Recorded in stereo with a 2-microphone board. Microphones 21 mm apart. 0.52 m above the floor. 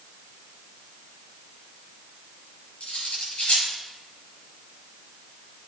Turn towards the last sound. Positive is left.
turn(degrees=65)  # may be behind; listen again after turning